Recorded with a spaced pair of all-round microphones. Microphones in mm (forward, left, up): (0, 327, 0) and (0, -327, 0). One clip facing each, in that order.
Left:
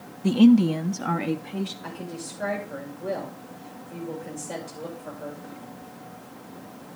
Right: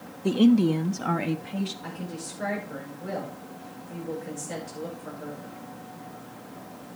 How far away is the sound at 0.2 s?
About 0.5 m.